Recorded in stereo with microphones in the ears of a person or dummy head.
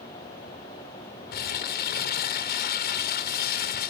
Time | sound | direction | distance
1.3 | crumpling | 50° left (ahead or behind) | 0.5 m